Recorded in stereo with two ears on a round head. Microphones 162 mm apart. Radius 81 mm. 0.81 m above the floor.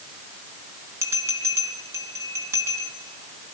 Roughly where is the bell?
Centre.